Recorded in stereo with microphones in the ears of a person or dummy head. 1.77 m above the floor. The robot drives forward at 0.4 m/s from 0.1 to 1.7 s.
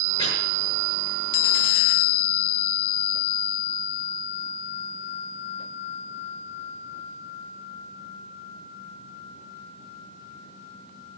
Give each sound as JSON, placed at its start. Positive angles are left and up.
{"t": 0.2, "sound": "chopping", "side_deg": 20, "distance_m": 9.0}